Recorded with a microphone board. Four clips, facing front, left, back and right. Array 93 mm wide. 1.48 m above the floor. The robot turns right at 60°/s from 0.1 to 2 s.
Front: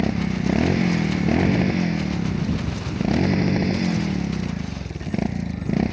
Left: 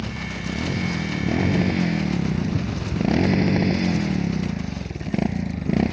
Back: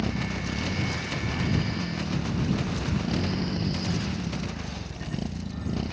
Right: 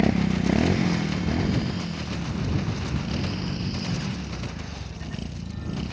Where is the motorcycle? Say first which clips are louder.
Right 8 dB, front 8 dB; 60° right; by 5.9 s 55° left.